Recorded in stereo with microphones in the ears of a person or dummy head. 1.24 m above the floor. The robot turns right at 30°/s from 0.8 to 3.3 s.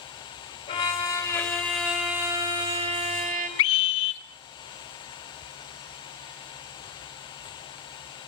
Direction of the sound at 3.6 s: 65° left (ahead or behind).